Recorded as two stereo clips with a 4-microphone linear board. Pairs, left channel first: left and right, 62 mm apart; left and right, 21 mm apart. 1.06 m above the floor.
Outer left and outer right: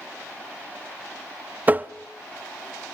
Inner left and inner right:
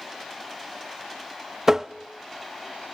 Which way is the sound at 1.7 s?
25° right (ahead or behind).